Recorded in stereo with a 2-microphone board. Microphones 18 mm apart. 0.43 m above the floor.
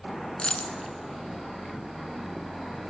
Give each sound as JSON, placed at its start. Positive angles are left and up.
{"t": 0.4, "sound": "a dropped coin", "side_deg": 60, "distance_m": 0.9}